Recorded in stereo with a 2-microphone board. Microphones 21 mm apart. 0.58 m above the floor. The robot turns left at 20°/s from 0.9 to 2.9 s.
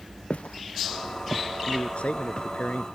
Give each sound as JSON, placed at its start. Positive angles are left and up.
{"t": 0.3, "sound": "footsteps", "side_deg": 85}
{"t": 1.7, "sound": "a man speaking", "side_deg": 65}